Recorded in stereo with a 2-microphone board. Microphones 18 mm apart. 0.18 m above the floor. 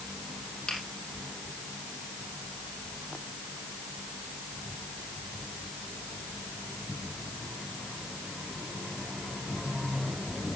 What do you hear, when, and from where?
0.7 s a finger snap: 55° left (ahead or behind), 4.5 m